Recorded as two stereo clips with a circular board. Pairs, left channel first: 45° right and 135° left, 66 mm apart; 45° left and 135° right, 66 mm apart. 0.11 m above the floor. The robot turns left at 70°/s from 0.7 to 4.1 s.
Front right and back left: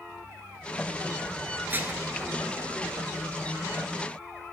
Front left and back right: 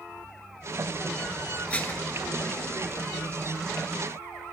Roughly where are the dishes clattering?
Left.